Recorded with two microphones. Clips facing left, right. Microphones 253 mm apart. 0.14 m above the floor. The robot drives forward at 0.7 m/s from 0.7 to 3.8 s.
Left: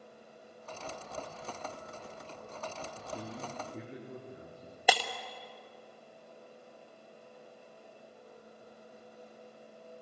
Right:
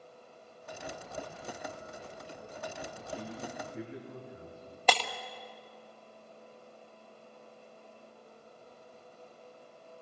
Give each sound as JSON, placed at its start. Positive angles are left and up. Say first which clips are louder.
{"t": 3.0, "sound": "a man speaking", "louder": "right 1 dB", "side_deg": 40, "distance_m": 6.0}
{"t": 4.9, "sound": "breaking glass", "louder": "even", "side_deg": 10, "distance_m": 1.7}